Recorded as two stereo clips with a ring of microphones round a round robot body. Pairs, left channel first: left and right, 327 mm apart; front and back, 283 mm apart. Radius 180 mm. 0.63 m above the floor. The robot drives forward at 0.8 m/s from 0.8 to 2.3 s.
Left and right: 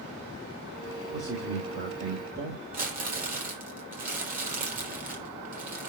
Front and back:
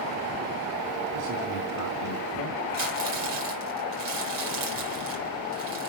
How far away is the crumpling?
About 5 m.